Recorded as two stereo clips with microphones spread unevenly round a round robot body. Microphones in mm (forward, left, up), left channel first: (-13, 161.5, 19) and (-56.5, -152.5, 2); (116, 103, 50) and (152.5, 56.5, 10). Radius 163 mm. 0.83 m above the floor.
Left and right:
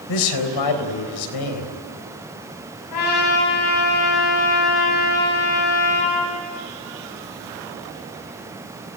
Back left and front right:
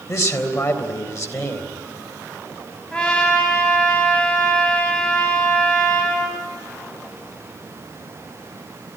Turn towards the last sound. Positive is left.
turn(degrees=60)